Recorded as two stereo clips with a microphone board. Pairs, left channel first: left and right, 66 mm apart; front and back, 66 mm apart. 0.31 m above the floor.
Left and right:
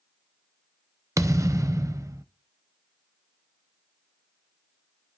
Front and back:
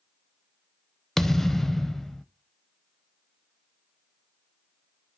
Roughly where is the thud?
Right.